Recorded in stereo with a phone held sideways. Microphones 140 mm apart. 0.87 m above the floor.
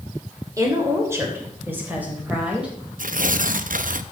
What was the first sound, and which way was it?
A woman speaking, 25° right (ahead or behind).